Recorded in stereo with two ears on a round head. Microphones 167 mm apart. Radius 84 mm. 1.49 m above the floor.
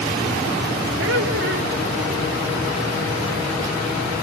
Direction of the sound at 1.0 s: 75° right (ahead or behind).